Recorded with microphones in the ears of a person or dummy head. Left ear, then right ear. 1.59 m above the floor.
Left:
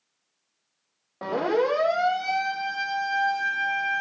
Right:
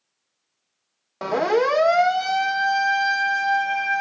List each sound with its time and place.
1.2 s a siren: 80° right, 3.5 m; by 4.0 s 35° right (ahead or behind), 5 m